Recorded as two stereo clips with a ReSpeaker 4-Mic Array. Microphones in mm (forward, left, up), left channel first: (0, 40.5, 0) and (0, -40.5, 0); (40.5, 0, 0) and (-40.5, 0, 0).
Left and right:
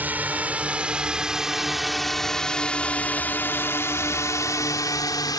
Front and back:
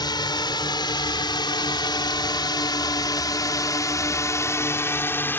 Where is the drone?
20° right; by 5.4 s 60° left.